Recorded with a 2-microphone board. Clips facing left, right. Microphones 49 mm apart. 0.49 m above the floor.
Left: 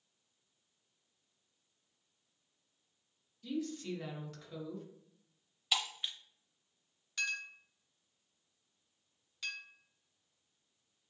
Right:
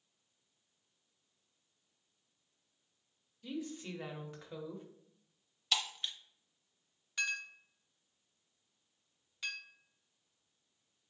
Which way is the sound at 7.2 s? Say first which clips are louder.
Right 1 dB; 10° right (ahead or behind).